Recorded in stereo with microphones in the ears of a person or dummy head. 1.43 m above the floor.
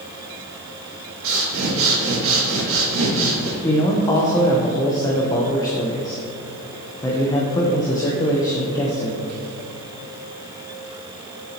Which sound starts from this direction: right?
Breathing, at 1.2 s.